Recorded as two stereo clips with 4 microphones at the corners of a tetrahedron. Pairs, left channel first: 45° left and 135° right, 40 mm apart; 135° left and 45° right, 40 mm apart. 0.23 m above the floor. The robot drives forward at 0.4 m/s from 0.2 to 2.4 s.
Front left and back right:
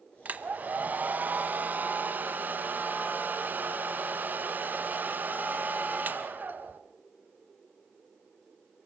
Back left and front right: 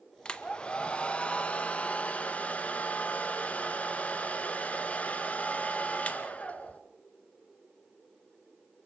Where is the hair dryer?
165° right, 1.1 m; by 6.8 s 170° right, 1.8 m.